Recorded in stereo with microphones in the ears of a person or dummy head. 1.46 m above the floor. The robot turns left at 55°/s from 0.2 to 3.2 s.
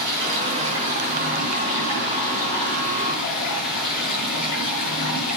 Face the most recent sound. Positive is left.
turn(degrees=120)